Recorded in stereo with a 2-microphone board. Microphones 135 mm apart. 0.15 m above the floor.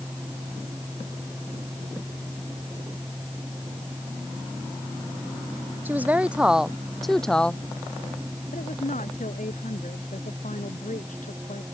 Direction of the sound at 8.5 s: 65° left (ahead or behind).